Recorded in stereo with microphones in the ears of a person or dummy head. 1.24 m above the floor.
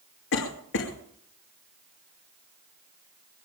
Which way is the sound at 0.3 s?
65° left (ahead or behind).